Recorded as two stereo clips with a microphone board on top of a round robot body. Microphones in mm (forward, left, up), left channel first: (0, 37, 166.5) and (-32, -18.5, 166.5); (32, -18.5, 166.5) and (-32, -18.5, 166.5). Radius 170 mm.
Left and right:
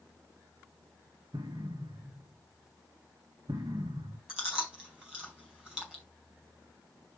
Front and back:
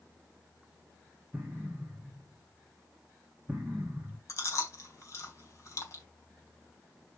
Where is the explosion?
110° right, 1.6 m.